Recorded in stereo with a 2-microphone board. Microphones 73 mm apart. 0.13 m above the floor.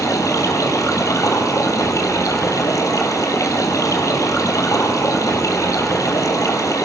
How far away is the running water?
About 2.5 m.